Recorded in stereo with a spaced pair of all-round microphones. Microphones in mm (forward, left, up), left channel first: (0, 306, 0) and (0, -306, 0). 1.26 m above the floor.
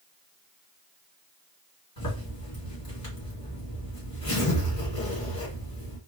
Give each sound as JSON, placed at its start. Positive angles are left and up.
{"t": 2.0, "sound": "a zipper", "side_deg": 40, "distance_m": 2.0}